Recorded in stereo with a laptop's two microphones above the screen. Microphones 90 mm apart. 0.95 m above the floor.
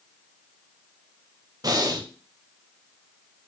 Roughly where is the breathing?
Right.